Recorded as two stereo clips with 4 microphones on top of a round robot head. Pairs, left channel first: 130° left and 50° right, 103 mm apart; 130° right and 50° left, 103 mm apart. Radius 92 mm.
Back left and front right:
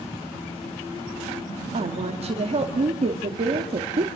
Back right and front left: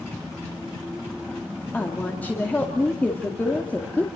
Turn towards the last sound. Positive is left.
turn(degrees=-55)